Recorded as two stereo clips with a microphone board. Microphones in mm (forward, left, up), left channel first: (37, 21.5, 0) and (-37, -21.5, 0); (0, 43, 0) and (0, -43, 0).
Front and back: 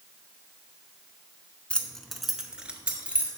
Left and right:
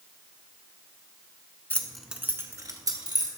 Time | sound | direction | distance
1.7 | keys jangling | 85° left | 0.8 m